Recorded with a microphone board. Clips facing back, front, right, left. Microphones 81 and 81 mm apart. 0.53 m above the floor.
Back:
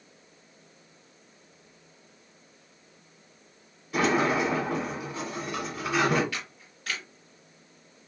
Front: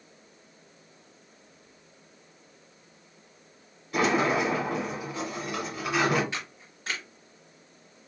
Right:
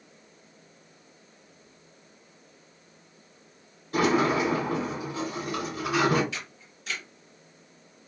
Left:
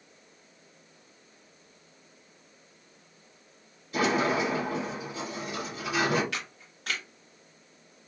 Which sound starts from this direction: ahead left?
A camera shutter, at 6.3 s.